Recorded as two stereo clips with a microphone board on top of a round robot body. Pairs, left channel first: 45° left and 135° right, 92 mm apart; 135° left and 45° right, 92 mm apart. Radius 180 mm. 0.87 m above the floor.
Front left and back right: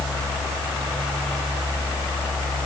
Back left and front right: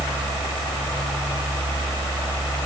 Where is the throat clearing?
No throat clearing in this recording.